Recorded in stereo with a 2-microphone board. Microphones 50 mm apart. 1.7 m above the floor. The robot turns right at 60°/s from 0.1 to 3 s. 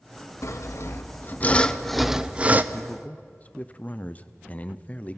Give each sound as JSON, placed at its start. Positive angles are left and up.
{"t": 0.4, "sound": "sawing", "azimuth_deg": 85, "distance_m": 0.7}
{"t": 2.7, "sound": "a man speaking", "side_deg": 45, "distance_m": 0.7}